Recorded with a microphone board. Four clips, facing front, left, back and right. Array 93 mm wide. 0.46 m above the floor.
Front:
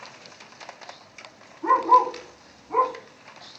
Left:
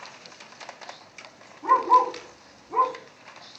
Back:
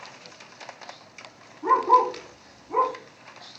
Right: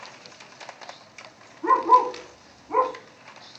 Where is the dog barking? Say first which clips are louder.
Right 1 dB, front 1 dB; 70° right, 1.8 m; by 2.9 s 80° right, 0.6 m.